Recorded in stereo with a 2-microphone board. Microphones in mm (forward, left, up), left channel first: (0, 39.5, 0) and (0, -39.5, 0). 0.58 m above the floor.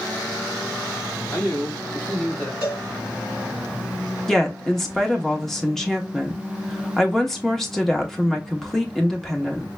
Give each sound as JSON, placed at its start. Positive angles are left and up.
{"t": 1.3, "sound": "a man speaking", "side_deg": 30, "distance_m": 2.5}
{"t": 2.6, "sound": "a cowbell", "side_deg": 35, "distance_m": 2.0}
{"t": 4.3, "sound": "a woman speaking", "side_deg": 5, "distance_m": 0.9}